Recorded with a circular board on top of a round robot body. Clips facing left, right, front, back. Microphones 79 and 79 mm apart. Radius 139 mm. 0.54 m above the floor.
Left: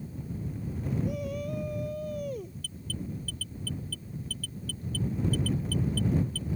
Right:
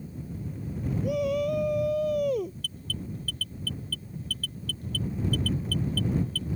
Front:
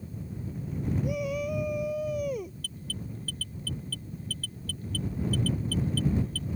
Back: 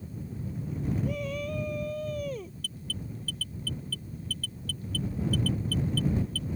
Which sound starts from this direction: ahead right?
An alarm, at 2.6 s.